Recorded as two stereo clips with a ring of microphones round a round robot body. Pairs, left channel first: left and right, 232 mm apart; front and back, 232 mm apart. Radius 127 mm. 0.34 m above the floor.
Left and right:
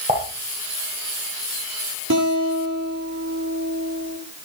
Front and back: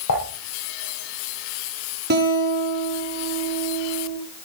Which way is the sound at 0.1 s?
25° right.